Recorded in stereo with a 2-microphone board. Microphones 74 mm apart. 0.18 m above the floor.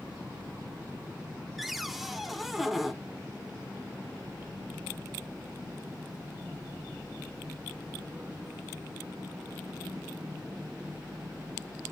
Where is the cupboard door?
Centre (ahead or behind), 0.7 m.